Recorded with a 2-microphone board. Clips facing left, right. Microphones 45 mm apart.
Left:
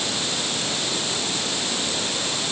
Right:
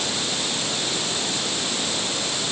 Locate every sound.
Only background noise.